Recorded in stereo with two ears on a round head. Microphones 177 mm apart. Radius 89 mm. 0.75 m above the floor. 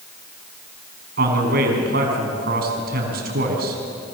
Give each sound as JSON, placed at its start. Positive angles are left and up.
{"t": 1.2, "sound": "a man speaking", "side_deg": -55, "distance_m": 5.5}